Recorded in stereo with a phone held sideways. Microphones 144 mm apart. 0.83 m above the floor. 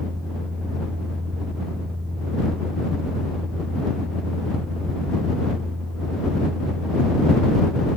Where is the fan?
40° right (ahead or behind).